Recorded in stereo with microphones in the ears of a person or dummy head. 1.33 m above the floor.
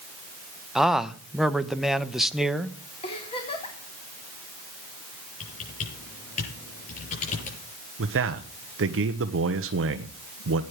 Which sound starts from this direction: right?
A man speaking, at 8.0 s.